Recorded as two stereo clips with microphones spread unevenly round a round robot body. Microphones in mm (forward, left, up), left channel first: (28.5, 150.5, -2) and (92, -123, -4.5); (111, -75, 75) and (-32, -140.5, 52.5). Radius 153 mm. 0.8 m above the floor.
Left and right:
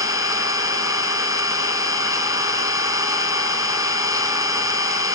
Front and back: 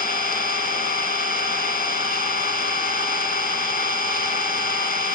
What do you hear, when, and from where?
0.0 s an engine running: straight ahead, 3 m